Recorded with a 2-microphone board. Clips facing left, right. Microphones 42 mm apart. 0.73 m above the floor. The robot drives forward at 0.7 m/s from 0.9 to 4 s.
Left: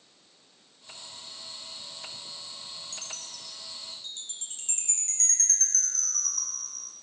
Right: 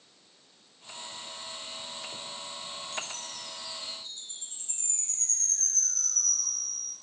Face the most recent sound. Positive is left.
turn(degrees=60)  # may be behind; listen again after turning